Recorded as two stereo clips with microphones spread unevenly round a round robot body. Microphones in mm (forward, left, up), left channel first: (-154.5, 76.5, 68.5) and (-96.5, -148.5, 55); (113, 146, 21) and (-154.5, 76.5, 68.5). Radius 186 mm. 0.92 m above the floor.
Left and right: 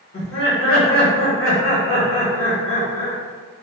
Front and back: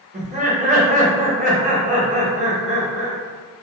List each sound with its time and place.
0.1 s laughter: 125° left, 1.4 m